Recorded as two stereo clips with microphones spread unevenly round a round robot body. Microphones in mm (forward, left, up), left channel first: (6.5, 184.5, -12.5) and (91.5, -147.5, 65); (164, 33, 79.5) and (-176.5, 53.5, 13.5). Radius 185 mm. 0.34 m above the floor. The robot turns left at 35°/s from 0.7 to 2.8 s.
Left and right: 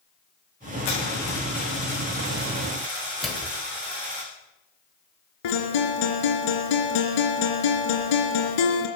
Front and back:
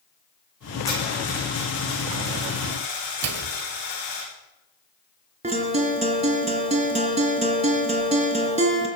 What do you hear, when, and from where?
0.8 s a dropped coin: 80° left, 10 m; by 4.2 s 10° left, 10 m
3.2 s a microwave: 175° right, 1.7 m
5.4 s a guitar: 105° left, 3 m